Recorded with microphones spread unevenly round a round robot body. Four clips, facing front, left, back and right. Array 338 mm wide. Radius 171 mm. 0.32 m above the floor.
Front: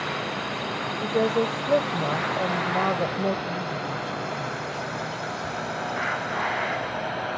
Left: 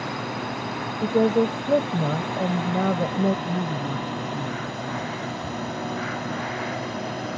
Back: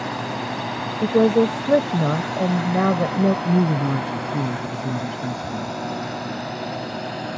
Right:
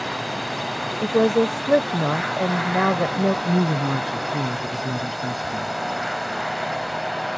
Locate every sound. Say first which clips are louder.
0.0 s a drone: right 2 dB, back 3 dB; 165° left; by 7.4 s 135° left
1.0 s a woman speaking: right 2 dB, back 7 dB; 170° left
3.5 s a woman speaking: right 6 dB, back 9 dB; 155° right